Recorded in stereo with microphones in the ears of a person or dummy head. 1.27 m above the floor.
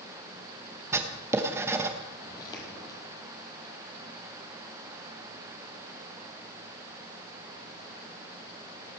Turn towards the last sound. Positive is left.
turn(degrees=25)  # may be behind; listen again after turning